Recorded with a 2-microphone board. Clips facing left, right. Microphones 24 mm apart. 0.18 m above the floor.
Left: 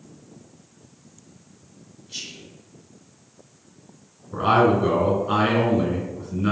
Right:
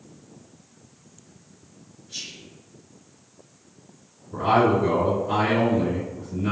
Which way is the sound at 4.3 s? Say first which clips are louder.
Left 1 dB; 30° left (ahead or behind).